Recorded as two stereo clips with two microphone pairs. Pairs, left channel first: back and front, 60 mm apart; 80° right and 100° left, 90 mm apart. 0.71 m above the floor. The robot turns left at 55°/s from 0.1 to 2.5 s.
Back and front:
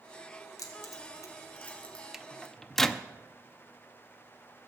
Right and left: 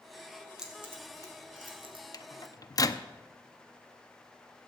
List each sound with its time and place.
0.6 s keys jangling: 175° right, 2 m; by 2.0 s 105° left, 2 m
2.1 s a microwave: 75° right, 0.6 m; by 3.0 s 95° right, 0.6 m